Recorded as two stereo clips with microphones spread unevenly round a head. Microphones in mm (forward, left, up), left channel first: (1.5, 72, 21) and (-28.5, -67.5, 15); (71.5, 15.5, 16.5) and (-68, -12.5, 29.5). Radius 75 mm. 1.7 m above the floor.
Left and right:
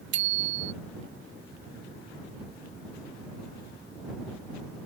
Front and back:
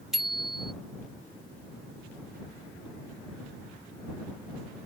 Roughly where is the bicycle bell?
Right.